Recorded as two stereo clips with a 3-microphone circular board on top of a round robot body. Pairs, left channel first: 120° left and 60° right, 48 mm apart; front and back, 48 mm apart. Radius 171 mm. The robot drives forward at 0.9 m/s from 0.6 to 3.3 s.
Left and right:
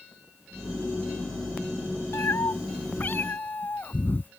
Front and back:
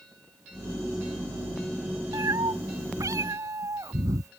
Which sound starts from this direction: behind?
A cat meowing, at 2.1 s.